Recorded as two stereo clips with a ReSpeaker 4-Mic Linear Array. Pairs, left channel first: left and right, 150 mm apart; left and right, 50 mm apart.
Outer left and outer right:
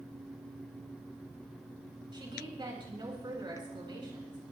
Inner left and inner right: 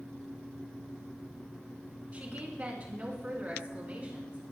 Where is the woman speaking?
30° right (ahead or behind), 4.5 m.